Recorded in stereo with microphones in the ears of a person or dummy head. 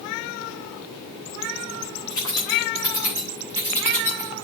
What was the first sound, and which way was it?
Keys jangling, 20° left (ahead or behind).